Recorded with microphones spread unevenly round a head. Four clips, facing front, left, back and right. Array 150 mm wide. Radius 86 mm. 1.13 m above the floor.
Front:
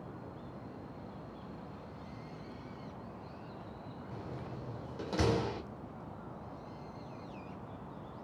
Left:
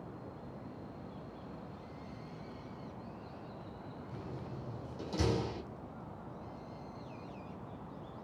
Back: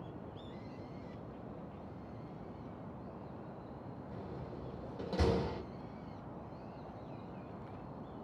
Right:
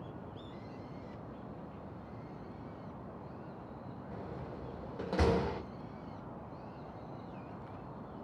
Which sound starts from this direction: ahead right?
A door slam, at 4.1 s.